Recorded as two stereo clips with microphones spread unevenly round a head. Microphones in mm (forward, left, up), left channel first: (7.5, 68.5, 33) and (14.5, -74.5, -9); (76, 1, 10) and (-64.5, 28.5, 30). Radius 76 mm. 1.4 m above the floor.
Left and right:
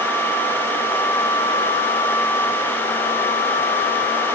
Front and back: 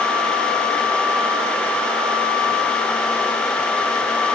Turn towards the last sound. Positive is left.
No sound to turn to.